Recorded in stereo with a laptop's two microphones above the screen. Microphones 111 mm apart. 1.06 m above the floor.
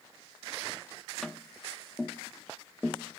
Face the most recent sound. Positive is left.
turn(degrees=5)  # may be behind; listen again after turning